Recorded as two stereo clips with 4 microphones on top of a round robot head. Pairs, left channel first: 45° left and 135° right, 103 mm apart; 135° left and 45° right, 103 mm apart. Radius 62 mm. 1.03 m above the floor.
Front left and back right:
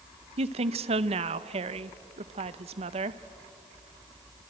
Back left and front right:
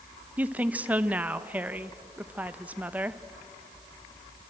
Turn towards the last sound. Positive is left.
turn(degrees=-120)